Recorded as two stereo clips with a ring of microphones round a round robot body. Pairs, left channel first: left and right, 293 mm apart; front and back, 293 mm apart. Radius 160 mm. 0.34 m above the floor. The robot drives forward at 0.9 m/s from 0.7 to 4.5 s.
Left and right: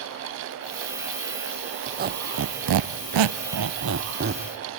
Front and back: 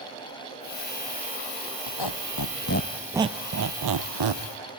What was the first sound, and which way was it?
A squeak, 25° right.